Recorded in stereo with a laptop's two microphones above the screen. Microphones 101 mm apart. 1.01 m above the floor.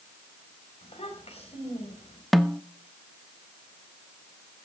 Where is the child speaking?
85° left, 3.5 m.